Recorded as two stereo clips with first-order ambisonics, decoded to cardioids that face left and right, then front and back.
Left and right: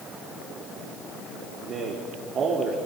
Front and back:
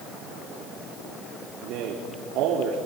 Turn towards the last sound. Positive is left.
turn(degrees=-150)